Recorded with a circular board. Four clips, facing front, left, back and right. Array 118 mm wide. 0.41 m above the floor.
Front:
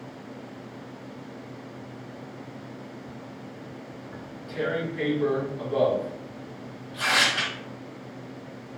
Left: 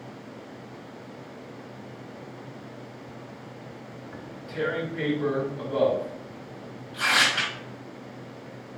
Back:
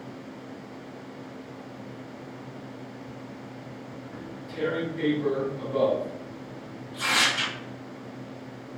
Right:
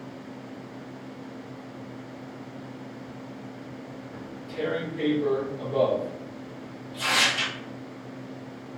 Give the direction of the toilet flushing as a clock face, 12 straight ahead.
I don't hear a toilet flushing.